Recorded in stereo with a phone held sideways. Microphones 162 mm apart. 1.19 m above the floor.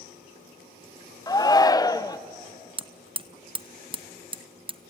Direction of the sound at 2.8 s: 35° right (ahead or behind).